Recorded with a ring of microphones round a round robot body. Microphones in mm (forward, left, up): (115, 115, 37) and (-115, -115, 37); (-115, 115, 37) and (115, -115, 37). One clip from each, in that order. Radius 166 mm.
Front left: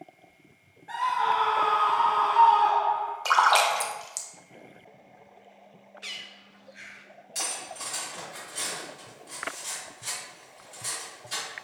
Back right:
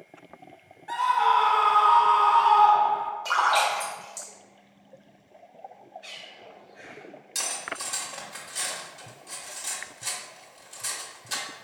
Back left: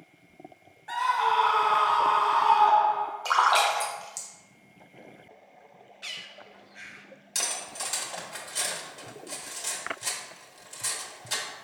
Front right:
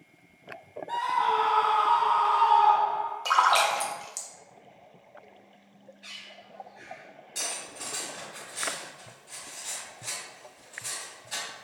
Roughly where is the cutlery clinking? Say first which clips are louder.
Back right 2 dB, back left 3 dB; behind.